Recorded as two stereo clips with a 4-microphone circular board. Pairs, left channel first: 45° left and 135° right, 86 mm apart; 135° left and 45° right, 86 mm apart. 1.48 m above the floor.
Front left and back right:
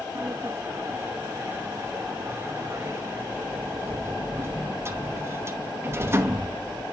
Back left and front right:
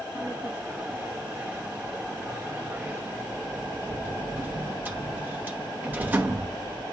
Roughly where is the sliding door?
Right.